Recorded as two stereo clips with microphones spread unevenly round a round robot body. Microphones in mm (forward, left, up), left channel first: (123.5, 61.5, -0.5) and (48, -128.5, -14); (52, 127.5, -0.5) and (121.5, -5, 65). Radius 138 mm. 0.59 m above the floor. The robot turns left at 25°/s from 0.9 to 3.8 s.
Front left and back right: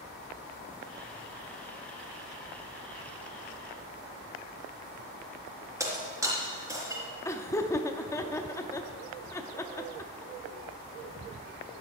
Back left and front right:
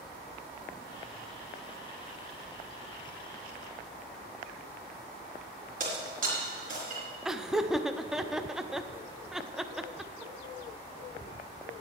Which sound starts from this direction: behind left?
Laughter, at 7.2 s.